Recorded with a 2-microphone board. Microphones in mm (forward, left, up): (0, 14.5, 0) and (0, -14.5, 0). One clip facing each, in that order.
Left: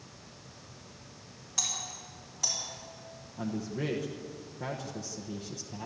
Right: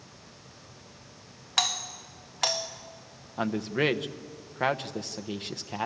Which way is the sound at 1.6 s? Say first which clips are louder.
Right 8 dB; 65° right (ahead or behind).